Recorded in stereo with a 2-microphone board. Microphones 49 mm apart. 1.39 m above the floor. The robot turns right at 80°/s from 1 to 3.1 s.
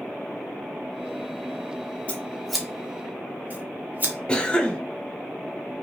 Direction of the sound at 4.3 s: 20° left (ahead or behind).